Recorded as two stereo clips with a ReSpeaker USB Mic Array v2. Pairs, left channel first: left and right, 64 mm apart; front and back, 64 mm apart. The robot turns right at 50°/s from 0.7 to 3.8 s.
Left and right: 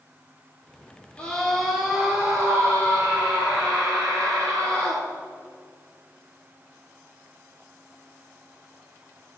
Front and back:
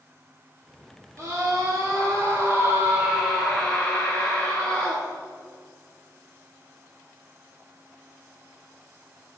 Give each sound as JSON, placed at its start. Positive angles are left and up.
{"t": 1.2, "sound": "a scream", "azimuth_deg": 160, "distance_m": 2.5}